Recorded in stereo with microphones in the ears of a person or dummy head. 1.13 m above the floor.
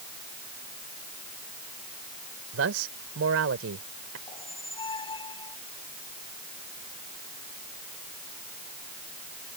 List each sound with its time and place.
2.5 s a man speaking: 70° right (ahead or behind)
4.3 s a squeak: 30° left (ahead or behind)